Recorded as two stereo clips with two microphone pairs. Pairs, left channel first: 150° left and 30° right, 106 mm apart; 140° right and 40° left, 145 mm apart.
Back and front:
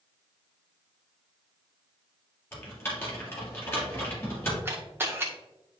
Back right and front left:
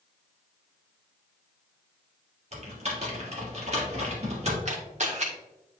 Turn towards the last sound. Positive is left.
turn(degrees=35)